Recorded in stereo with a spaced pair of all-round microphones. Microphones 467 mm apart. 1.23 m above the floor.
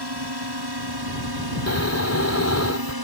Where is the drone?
50° right (ahead or behind); by 3.0 s 45° right (ahead or behind).